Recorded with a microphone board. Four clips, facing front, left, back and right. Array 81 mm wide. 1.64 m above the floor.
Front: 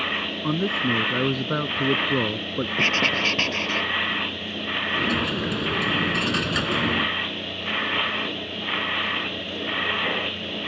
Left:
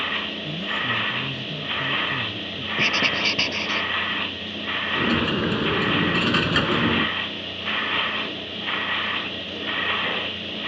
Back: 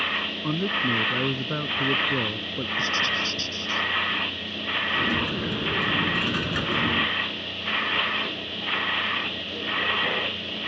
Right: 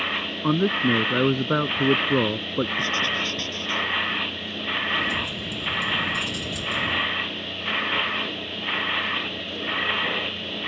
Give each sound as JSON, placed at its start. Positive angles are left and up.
{"t": 0.4, "sound": "a man speaking", "azimuth_deg": -80}
{"t": 2.8, "sound": "writing", "azimuth_deg": 25}
{"t": 5.0, "sound": "a dropped coin", "azimuth_deg": 80}